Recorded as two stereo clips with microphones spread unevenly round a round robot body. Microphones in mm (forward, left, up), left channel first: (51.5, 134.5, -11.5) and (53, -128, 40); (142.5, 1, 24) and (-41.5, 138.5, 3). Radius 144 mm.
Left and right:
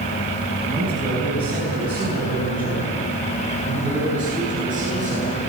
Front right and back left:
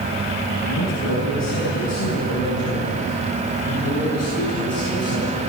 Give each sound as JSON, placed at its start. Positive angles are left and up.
{"t": 0.6, "sound": "a man speaking", "azimuth_deg": -5, "distance_m": 6.5}